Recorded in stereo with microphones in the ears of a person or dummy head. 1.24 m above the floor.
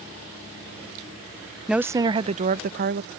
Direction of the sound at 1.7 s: Centre (ahead or behind).